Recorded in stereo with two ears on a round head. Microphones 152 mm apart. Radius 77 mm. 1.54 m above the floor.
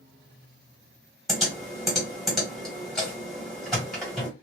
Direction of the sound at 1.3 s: Centre (ahead or behind).